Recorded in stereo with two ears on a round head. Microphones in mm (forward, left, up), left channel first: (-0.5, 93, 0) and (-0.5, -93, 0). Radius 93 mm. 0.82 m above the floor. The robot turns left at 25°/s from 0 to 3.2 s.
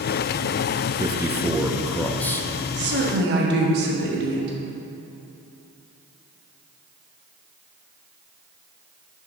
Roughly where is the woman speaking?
Right.